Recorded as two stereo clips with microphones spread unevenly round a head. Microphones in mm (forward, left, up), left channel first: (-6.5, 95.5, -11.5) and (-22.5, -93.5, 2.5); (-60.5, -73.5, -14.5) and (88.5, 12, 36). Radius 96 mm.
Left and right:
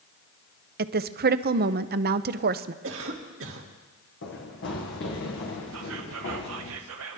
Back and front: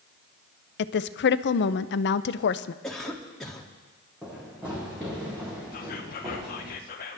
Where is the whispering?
110° right, 0.7 m.